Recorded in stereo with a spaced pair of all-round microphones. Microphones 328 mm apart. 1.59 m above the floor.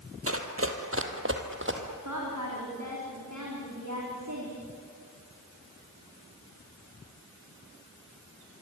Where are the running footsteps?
40° right (ahead or behind), 2 m; by 1.8 s 35° right (ahead or behind), 2.5 m.